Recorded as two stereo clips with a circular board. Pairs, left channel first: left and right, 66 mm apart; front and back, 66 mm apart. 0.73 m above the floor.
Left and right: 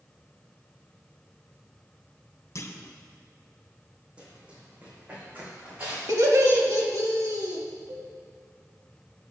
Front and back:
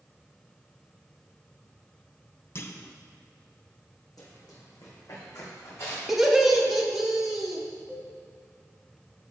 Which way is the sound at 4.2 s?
20° right.